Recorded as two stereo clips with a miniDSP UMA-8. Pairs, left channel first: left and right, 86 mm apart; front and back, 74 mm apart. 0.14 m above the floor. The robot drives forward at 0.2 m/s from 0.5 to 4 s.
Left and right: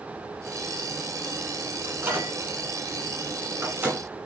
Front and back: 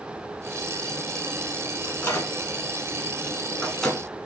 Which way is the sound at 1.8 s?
40° right.